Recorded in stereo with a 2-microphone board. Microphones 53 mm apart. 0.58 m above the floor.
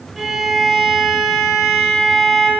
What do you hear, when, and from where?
0.2 s a violin: 5° right (ahead or behind), 1.8 m